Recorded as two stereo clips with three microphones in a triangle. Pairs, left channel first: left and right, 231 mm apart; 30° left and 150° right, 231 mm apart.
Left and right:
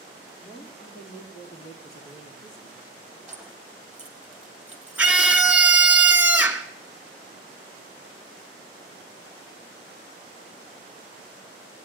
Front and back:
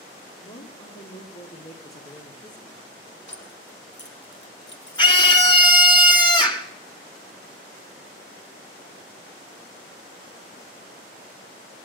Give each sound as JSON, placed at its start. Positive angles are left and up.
{"t": 0.4, "sound": "a woman speaking", "azimuth_deg": 30, "distance_m": 3.5}
{"t": 3.3, "sound": "keys jangling", "azimuth_deg": -5, "distance_m": 2.0}
{"t": 5.0, "sound": "a scream", "azimuth_deg": -15, "distance_m": 1.1}